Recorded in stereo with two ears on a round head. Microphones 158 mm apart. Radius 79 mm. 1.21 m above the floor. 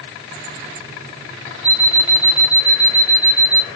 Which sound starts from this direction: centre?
An alarm clock, at 1.6 s.